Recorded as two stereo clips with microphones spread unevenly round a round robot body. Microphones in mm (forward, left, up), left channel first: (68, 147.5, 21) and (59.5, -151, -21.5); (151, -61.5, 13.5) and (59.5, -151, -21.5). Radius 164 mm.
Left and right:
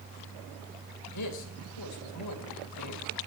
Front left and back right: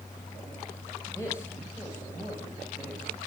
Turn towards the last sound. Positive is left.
turn(degrees=130)